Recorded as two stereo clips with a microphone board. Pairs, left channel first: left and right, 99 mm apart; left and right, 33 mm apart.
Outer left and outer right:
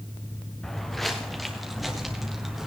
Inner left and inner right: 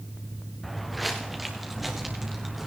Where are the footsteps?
5° left (ahead or behind), 1.9 m; by 2.7 s 5° right (ahead or behind), 3 m.